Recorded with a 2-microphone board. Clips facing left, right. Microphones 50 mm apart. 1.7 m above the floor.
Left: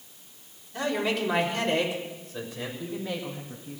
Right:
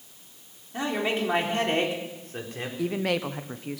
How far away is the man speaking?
About 4 m.